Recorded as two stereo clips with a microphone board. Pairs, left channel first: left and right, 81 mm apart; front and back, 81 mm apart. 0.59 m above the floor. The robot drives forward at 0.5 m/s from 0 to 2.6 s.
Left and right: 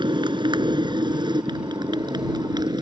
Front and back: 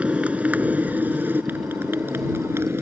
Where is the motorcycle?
105° right; by 2.8 s 120° right.